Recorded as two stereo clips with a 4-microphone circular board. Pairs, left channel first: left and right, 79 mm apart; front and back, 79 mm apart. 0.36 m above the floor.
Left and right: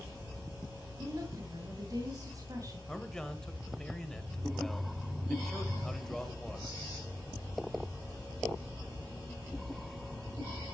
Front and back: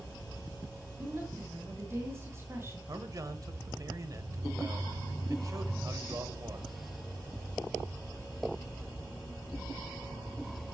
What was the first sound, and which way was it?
A woman speaking, 125° right.